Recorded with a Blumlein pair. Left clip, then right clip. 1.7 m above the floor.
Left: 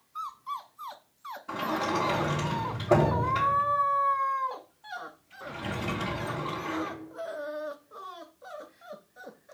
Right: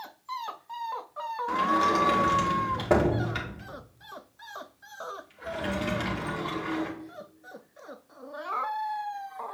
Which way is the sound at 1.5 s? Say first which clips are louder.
Right 5 dB; 35° right.